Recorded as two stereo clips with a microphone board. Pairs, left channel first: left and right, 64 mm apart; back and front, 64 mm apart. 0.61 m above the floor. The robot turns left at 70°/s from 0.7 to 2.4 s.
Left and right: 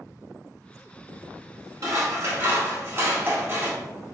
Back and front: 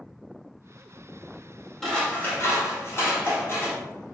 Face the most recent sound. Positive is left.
turn(degrees=-135)